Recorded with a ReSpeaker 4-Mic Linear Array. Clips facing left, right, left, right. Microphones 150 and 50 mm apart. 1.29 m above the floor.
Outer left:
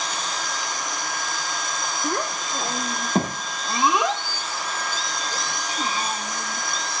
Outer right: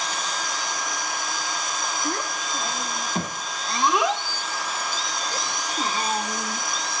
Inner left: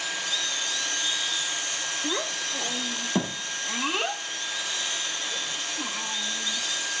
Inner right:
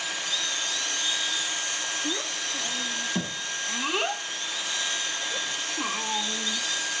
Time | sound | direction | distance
2.0 | a child speaking | 60° left (ahead or behind) | 1.1 m